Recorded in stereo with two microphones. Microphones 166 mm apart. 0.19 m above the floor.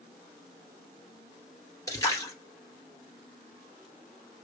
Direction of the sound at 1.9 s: 20° left (ahead or behind).